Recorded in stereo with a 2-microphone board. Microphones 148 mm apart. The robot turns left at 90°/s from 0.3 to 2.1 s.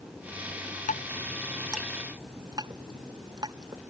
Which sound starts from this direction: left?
Dripping, at 0.9 s.